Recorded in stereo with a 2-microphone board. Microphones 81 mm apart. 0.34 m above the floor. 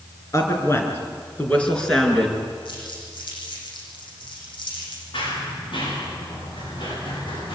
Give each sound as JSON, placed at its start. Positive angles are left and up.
{"t": 0.3, "sound": "a woman speaking", "side_deg": 40, "distance_m": 4.5}
{"t": 2.6, "sound": "crumpling", "side_deg": 70, "distance_m": 8.5}
{"t": 5.1, "sound": "running footsteps", "side_deg": 85, "distance_m": 9.0}